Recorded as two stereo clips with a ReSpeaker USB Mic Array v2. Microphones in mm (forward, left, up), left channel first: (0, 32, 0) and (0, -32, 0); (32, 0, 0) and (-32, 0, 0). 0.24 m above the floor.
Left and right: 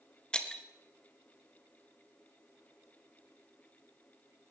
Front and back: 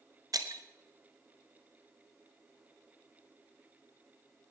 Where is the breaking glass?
165° left, 1.1 m.